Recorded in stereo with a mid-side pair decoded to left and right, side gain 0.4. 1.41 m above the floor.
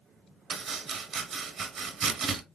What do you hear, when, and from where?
0.5 s chopping: 60° right, 0.8 m